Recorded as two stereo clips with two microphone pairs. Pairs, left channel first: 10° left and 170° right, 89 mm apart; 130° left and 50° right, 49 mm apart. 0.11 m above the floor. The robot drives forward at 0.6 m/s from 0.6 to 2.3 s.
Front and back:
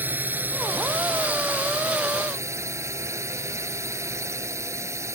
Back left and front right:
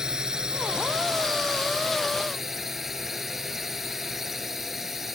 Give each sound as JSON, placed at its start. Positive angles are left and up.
{"t": 0.0, "sound": "a drone", "azimuth_deg": -120}